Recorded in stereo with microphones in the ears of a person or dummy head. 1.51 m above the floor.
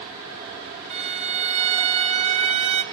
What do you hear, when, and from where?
0.9 s a violin: 40° right (ahead or behind), 1.1 m